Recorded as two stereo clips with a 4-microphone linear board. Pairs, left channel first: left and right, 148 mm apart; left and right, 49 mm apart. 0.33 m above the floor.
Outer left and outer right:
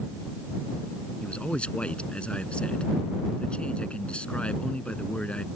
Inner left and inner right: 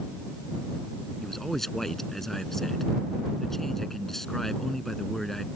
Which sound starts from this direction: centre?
A man speaking, at 1.2 s.